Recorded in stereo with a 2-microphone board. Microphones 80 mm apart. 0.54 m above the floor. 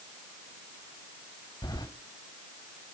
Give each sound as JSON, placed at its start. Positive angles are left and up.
{"t": 1.6, "sound": "keys jangling", "side_deg": 60, "distance_m": 1.9}